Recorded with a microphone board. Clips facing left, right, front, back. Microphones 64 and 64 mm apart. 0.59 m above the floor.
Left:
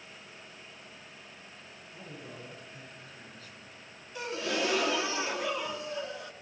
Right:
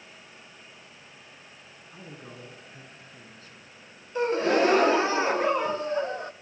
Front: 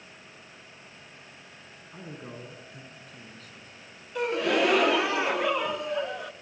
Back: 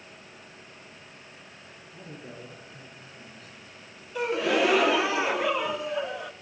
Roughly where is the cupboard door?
I don't hear a cupboard door.